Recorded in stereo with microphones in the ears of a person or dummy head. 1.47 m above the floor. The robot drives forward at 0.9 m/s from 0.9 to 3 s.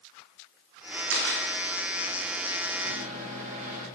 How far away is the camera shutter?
About 2 m.